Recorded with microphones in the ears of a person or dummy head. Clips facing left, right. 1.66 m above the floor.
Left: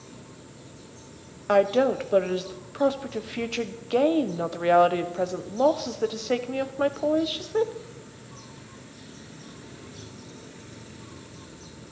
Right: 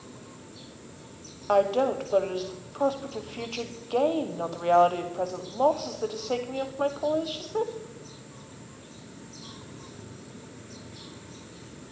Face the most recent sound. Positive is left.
turn(degrees=25)  # may be behind; listen again after turning